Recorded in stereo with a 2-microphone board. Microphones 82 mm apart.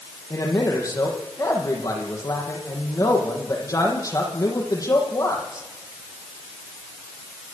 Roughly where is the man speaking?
Left.